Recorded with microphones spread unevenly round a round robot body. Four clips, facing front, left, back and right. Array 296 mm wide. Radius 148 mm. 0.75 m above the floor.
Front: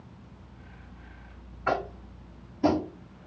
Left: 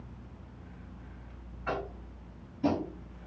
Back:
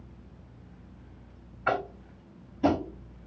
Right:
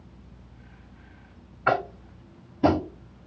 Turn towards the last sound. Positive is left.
turn(degrees=-80)